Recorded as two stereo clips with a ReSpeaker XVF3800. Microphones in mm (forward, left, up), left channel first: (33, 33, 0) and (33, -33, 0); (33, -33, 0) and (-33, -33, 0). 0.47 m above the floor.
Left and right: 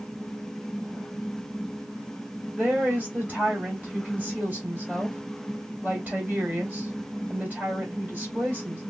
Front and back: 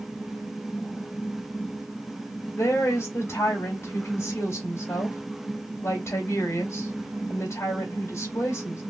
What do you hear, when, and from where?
2.6 s a woman speaking: 30° right, 2 m